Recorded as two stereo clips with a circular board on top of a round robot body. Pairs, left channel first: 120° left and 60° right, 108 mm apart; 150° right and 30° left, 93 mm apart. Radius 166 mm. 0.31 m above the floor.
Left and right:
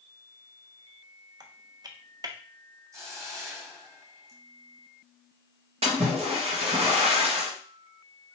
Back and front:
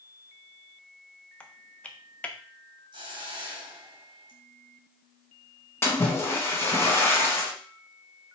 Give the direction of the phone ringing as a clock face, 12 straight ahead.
No phone ringing in this recording.